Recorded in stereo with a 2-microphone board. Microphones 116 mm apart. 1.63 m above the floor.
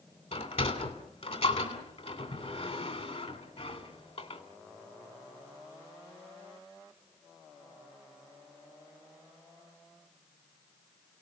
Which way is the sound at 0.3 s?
65° left (ahead or behind).